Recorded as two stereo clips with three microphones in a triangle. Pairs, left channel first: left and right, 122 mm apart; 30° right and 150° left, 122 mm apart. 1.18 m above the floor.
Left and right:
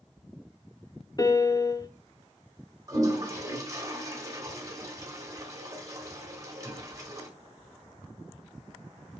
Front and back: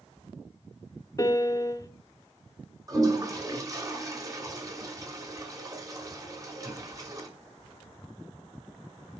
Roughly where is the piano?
Ahead left.